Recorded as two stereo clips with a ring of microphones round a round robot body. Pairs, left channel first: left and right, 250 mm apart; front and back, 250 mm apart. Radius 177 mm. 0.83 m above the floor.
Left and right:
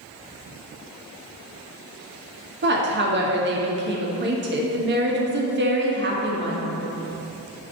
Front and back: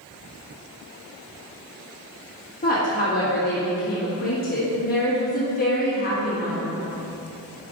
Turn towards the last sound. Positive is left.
turn(degrees=-55)